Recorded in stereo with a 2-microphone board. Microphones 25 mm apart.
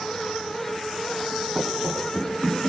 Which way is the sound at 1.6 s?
50° right (ahead or behind).